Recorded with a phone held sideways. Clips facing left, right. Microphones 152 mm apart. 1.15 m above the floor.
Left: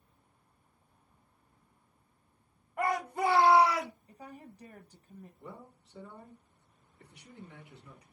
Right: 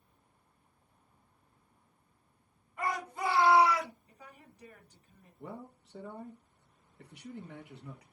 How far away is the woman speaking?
About 0.9 m.